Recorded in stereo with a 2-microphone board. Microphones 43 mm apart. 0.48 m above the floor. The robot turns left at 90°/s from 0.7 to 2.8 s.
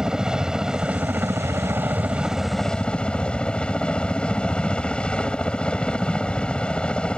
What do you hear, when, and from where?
0.0 s a helicopter: 15° right; by 7.2 s 155° left